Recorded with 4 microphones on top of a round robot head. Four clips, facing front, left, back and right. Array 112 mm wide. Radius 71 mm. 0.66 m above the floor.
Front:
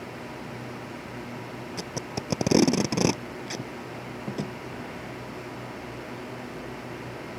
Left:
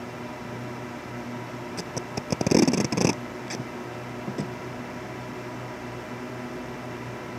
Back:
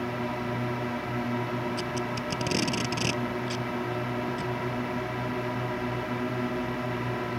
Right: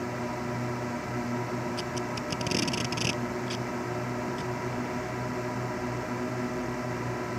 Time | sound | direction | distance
0.0 | a drone | 155° right | ?
1.8 | tape being pulled | 50° left | ?